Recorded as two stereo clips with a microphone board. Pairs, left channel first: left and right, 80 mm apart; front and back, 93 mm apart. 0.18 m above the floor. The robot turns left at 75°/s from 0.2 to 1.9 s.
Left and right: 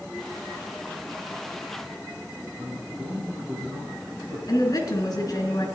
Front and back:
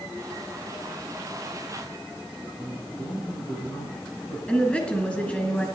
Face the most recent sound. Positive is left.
turn(degrees=70)